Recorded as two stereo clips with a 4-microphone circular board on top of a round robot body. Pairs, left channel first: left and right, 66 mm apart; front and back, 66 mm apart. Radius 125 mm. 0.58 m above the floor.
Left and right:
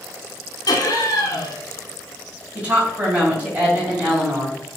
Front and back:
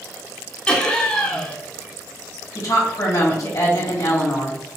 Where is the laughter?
75° left, 1.4 m.